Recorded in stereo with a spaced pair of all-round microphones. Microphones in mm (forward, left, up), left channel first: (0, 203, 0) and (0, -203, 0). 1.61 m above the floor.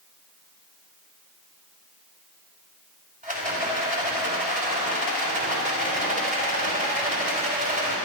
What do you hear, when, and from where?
3.2 s a rattle: 20° right (ahead or behind), 3 m